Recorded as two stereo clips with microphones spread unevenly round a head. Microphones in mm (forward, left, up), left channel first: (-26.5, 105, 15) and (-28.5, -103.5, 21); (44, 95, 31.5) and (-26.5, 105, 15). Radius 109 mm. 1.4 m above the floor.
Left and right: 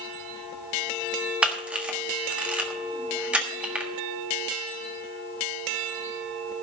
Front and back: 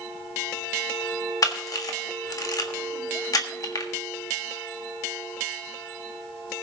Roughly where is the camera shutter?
Ahead.